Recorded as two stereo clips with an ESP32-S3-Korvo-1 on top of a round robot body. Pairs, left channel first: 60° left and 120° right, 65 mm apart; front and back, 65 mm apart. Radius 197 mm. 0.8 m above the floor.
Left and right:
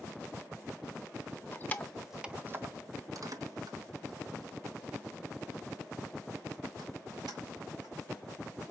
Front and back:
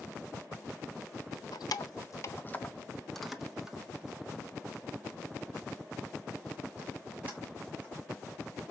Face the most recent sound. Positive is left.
turn(degrees=-115)